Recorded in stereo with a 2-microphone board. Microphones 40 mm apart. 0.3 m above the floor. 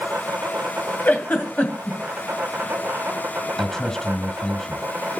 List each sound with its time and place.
0.0 s an insect: 50° right (ahead or behind), 1.2 m
1.1 s a giggle: 45° left (ahead or behind), 2 m
3.6 s a man speaking: 10° left (ahead or behind), 1.9 m